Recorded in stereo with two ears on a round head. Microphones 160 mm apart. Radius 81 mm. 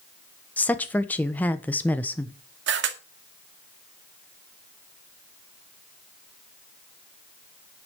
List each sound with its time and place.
0.6 s a woman speaking: 10° left (ahead or behind), 1.0 m
2.7 s a camera shutter: 70° right (ahead or behind), 2 m